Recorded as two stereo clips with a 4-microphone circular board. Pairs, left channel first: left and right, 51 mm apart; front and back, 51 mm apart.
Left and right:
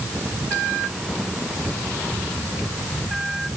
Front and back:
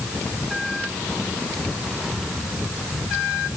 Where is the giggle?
No giggle in this recording.